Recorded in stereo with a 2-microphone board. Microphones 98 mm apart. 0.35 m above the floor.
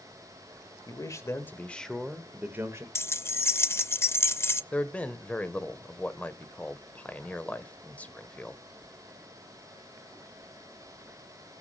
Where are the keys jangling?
25° left (ahead or behind), 0.5 m.